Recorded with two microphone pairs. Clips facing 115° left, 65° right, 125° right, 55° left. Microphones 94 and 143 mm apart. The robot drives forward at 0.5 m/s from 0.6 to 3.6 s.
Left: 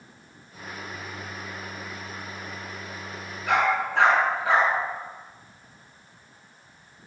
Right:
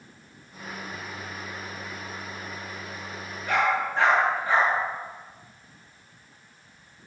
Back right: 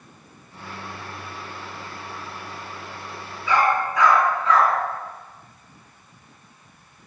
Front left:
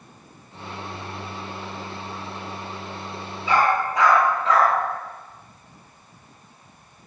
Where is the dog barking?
115° left, 6.5 m.